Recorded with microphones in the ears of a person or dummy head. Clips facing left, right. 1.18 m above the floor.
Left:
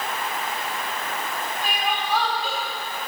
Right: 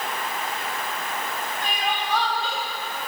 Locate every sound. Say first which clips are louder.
1.6 s crying: left 1 dB; 5° left (ahead or behind), 3.5 m